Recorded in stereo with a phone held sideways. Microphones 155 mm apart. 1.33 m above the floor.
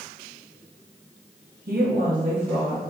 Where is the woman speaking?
65° right (ahead or behind), 0.8 m; by 2.8 s 10° right (ahead or behind), 1.0 m.